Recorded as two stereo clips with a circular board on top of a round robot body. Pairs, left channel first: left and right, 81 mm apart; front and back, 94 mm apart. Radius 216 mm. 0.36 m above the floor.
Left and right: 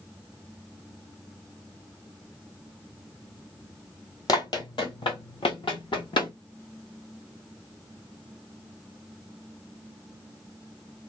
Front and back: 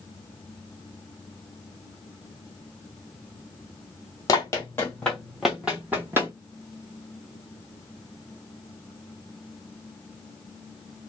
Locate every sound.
4.3 s running footsteps: 55° left, 0.9 m; by 6.3 s 115° left, 1.1 m